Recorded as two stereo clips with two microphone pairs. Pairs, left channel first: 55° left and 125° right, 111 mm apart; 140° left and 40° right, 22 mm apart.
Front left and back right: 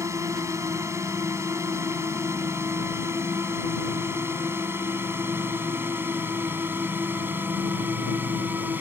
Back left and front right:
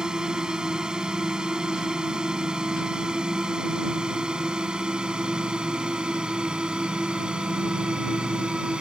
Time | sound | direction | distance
0.0 | a drone | 80° right | ?